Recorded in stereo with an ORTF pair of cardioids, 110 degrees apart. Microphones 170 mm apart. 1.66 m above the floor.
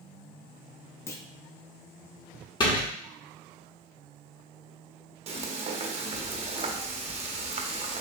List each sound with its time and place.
1.1 s a clunk: 15° left, 0.6 m
2.6 s a door slam: 30° left, 1.8 m
5.3 s frying: 35° right, 0.8 m